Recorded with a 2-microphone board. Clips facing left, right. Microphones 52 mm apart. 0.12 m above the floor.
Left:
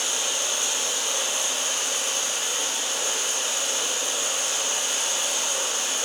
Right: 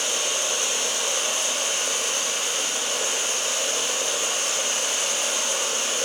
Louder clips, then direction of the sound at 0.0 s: Right 2 dB; 55° right (ahead or behind).